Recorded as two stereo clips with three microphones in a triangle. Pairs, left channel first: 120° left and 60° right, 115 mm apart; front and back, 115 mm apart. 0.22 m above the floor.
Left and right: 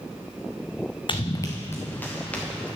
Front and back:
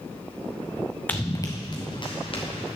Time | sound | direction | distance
1.1 | running footsteps | 75° left | 1.0 m